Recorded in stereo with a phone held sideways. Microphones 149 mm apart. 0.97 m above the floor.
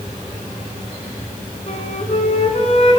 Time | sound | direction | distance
1.7 | a flute | 45° left (ahead or behind) | 1.4 m